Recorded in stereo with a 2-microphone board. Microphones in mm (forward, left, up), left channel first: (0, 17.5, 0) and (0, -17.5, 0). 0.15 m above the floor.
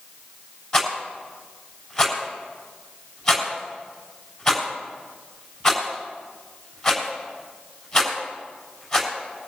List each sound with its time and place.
0.7 s a rattle: 25° left (ahead or behind), 6.5 m